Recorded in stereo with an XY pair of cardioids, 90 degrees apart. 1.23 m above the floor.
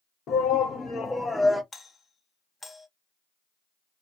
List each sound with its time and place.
0.3 s a shout: 65° left, 1.0 m; by 1.6 s 10° right, 0.8 m
1.7 s a doorbell: 30° left, 1.1 m